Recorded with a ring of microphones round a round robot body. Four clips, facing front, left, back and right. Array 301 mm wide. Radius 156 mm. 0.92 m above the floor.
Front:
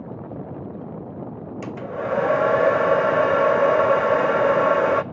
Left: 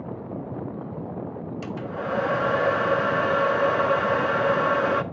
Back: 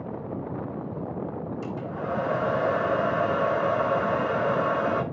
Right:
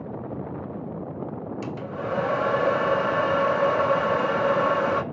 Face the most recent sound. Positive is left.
turn(degrees=10)